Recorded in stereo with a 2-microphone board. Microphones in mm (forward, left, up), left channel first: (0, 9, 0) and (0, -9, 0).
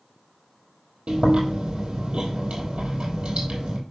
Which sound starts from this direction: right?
Chewing, at 1.1 s.